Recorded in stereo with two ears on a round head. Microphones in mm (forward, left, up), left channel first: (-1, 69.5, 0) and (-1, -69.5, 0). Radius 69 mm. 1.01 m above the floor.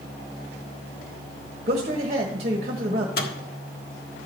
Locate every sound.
1.7 s a man speaking: 45° right (ahead or behind), 1.4 m
3.2 s a microwave: 65° left (ahead or behind), 1.6 m